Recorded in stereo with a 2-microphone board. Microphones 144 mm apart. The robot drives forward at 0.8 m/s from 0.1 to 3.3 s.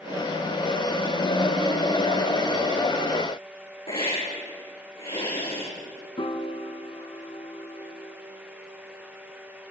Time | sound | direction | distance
3.9 | a hiss | 40° left (ahead or behind) | 5.5 m
6.2 | a piano | 40° left (ahead or behind) | 1.1 m